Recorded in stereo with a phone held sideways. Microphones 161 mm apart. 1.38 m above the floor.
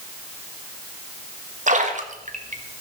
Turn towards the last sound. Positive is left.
turn(degrees=-50)  # may be behind; listen again after turning